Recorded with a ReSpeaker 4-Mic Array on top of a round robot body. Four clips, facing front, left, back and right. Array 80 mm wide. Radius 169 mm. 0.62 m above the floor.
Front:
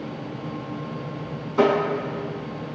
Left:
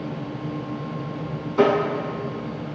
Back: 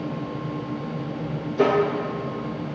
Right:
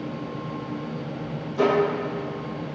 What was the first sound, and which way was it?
Tapping, 35° left.